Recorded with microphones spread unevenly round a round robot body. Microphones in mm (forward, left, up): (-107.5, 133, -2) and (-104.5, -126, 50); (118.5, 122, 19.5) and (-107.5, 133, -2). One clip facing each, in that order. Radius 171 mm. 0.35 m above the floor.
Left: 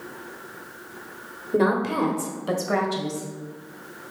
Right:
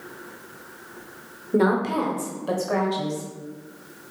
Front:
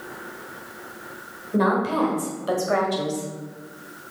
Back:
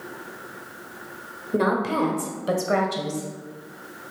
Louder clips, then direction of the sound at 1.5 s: Right 1 dB, front 1 dB; 175° left.